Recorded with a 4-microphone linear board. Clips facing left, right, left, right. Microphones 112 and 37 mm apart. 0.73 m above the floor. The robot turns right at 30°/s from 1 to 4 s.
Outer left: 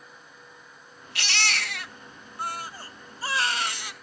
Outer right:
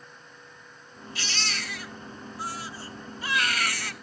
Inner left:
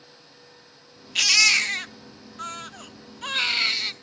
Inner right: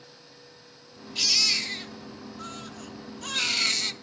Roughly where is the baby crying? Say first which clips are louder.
Outer left 5 dB, inner left 8 dB; left.